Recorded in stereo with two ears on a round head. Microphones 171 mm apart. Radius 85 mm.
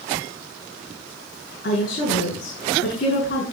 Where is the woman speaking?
50° left (ahead or behind), 6.5 m.